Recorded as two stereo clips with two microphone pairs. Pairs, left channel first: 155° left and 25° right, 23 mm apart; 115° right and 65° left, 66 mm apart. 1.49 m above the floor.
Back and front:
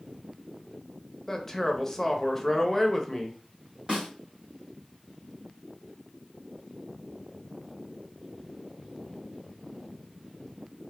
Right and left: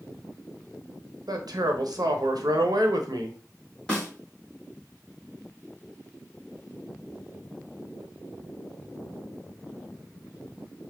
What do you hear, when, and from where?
1.3 s a man speaking: 85° left, 0.6 m
3.9 s a snare drum: 40° right, 1.6 m